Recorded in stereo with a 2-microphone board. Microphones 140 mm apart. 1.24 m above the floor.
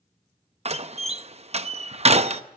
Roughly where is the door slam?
Right.